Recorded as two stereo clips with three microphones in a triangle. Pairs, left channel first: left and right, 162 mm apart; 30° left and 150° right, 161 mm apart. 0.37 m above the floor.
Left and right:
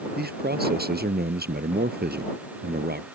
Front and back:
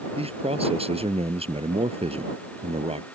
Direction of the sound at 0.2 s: 100° right.